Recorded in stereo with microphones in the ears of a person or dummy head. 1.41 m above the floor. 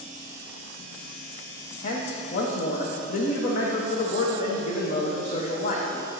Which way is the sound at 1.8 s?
50° left (ahead or behind).